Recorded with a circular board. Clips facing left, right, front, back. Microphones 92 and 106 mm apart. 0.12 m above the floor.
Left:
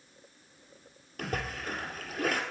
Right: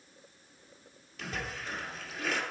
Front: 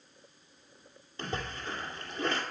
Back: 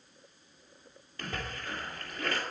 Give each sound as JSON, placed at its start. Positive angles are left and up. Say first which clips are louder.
{"t": 1.2, "sound": "a splash", "louder": "left 4 dB, front 2 dB", "azimuth_deg": 65, "distance_m": 2.0}